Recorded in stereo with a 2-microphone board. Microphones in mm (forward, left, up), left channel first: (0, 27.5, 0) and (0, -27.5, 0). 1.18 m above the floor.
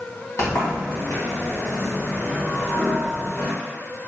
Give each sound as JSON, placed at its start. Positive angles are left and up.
{"t": 0.4, "sound": "a sliding door", "side_deg": 75, "distance_m": 1.6}